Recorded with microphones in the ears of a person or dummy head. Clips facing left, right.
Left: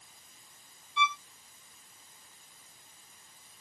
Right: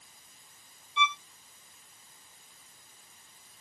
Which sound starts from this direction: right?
A violin, at 1.0 s.